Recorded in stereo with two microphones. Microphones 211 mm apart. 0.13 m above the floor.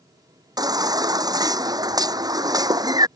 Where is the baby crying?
20° right (ahead or behind).